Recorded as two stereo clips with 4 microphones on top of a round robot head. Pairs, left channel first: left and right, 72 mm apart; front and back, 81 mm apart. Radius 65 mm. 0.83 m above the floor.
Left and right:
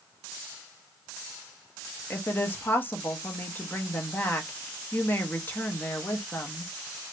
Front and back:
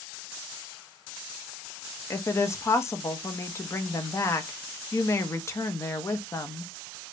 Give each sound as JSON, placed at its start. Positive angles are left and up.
{"t": 2.1, "sound": "a woman speaking", "azimuth_deg": 35, "distance_m": 0.8}